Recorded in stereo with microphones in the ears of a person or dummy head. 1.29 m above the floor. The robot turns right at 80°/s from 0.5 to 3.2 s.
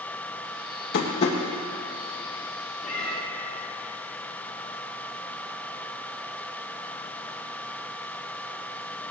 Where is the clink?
No clink in this recording.